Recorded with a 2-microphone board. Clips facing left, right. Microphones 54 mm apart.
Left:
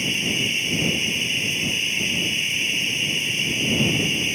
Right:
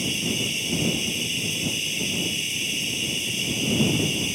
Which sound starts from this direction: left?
Running water, at 0.0 s.